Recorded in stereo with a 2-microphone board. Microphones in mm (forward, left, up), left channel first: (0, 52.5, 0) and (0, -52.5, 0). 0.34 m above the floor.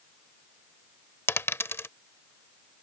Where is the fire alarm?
No fire alarm in this recording.